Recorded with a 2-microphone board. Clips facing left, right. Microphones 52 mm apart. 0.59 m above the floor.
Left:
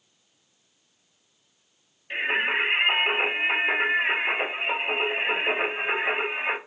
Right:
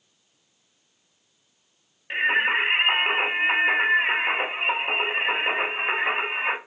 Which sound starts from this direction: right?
Singing, at 2.1 s.